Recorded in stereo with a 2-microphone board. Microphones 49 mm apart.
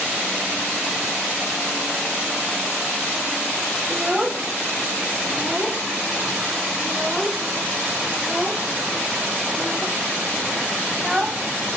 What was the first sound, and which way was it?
A child speaking, 10° right (ahead or behind).